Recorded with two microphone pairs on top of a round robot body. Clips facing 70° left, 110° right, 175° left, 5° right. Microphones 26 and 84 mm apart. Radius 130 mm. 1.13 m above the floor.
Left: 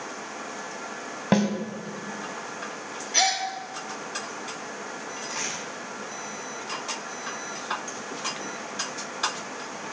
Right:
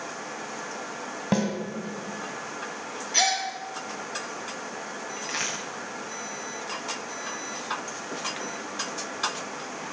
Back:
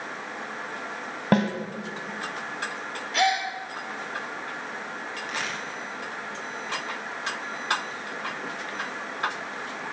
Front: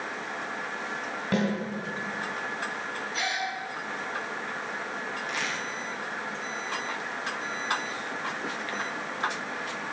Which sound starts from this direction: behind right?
A crack, at 5.2 s.